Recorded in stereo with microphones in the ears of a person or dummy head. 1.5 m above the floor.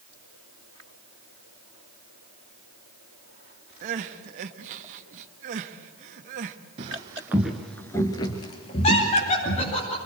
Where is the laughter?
40° left (ahead or behind), 9.5 m.